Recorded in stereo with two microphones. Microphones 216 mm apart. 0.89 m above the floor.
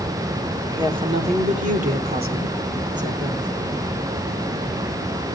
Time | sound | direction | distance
0.6 | a woman speaking | 20° right (ahead or behind) | 2.0 m